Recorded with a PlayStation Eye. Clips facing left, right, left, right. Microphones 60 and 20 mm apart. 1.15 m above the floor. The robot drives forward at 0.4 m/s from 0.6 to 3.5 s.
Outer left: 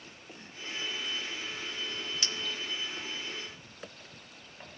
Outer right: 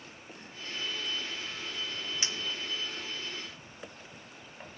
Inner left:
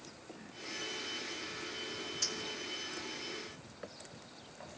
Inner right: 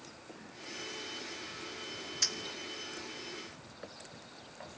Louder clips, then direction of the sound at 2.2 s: Even, inner right 5 dB; 20° right (ahead or behind).